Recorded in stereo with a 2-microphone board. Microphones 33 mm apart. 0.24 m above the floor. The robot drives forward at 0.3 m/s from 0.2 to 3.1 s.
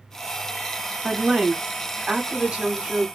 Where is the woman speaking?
15° right (ahead or behind), 1.4 m; by 3.1 s 20° right (ahead or behind), 1.1 m.